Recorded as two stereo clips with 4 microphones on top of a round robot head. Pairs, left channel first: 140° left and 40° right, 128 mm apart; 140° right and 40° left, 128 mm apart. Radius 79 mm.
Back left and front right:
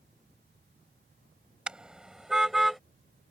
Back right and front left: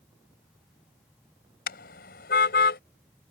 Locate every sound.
1.7 s a car horn: 125° right; by 2.8 s 130° right